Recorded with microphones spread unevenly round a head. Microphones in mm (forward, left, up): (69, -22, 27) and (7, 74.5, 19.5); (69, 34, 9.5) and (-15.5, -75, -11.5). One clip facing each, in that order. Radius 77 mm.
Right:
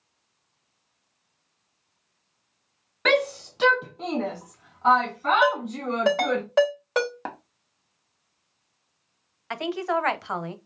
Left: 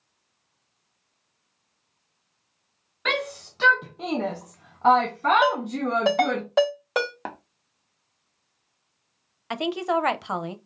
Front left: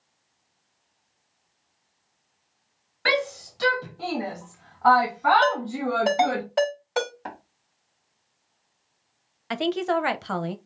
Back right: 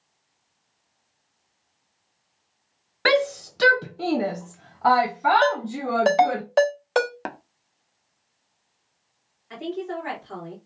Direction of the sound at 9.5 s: 55° left.